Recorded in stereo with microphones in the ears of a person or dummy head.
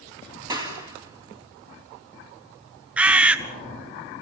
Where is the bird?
5° right (ahead or behind), 1.3 m.